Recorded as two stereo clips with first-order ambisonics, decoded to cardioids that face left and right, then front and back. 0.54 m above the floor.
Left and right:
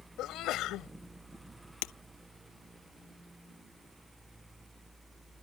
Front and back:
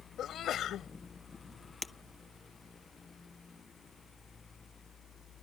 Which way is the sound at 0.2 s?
50° left.